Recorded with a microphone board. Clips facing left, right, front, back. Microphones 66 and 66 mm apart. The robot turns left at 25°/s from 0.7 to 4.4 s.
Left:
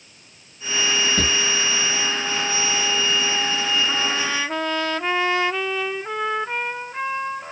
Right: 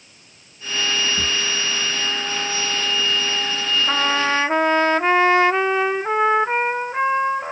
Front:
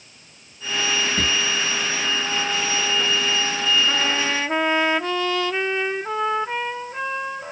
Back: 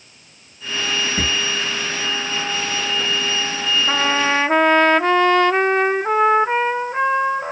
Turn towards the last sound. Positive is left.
turn(degrees=-140)